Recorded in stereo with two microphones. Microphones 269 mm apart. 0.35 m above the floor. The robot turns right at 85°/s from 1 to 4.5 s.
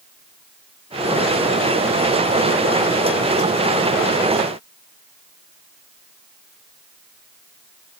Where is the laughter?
No laughter in this recording.